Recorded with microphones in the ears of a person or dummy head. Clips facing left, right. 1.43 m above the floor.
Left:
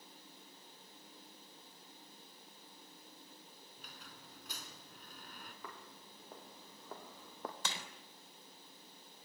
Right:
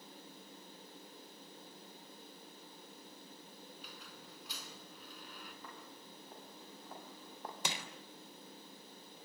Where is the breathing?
I don't hear breathing.